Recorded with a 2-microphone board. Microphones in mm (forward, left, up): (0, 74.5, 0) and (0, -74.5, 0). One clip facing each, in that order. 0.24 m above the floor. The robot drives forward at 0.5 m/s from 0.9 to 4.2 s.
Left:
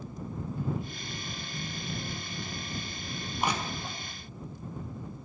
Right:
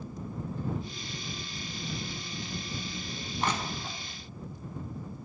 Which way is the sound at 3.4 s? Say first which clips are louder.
Even; 10° left (ahead or behind).